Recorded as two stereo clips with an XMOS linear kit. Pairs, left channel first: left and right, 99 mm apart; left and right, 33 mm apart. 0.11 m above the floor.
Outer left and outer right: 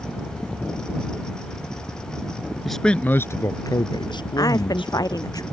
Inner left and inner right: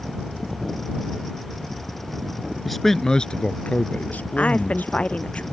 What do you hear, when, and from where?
2.6 s a man speaking: centre (ahead or behind); by 5.3 s 65° left (ahead or behind)
4.4 s a woman speaking: 40° left (ahead or behind)